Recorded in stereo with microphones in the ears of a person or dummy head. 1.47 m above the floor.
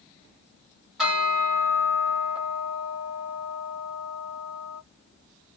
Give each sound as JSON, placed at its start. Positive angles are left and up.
{"t": 1.0, "sound": "a bell", "side_deg": -10, "distance_m": 1.2}